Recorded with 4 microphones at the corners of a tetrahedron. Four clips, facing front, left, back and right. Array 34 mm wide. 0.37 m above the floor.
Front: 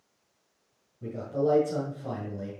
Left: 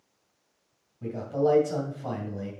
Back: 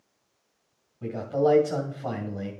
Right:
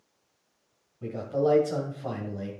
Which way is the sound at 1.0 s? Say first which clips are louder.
Even, back 4 dB; 175° right.